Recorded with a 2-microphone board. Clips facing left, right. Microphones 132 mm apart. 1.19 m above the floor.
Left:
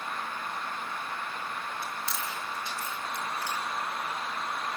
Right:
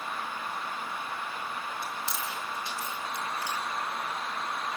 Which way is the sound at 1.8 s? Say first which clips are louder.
Even; 15° right (ahead or behind).